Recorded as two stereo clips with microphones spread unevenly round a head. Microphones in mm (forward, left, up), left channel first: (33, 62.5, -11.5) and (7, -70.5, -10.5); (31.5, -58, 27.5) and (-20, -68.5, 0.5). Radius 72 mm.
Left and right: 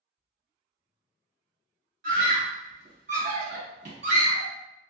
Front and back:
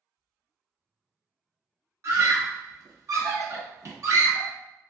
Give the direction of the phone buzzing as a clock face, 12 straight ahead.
No phone buzzing in this recording.